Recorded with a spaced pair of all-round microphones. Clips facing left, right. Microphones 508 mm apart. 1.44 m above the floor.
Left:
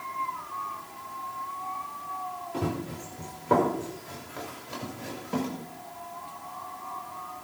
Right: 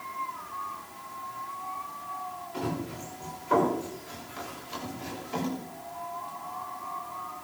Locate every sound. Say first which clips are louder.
2.5 s running footsteps: left 1 dB; 70° left (ahead or behind), 5.5 m